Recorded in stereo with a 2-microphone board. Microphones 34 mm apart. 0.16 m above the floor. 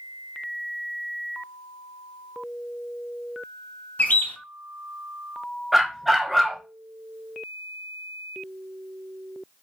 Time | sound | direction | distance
4.0 | a bird | 55° left (ahead or behind) | 0.6 m
5.7 | a dog barking | 10° right (ahead or behind) | 0.6 m